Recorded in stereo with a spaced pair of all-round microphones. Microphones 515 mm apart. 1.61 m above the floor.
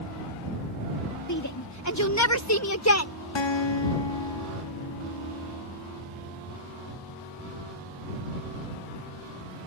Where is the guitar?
55° left (ahead or behind).